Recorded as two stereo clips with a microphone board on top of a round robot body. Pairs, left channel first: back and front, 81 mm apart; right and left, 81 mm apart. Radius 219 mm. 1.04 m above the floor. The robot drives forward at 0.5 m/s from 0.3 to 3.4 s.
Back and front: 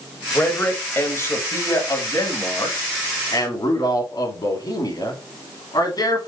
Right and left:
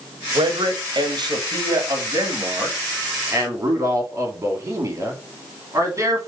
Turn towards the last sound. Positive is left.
turn(degrees=145)